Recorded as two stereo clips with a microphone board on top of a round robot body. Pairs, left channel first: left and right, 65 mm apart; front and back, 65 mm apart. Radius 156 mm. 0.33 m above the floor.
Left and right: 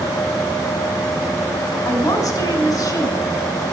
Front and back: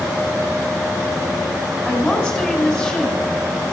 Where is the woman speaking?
80° left, 5 m.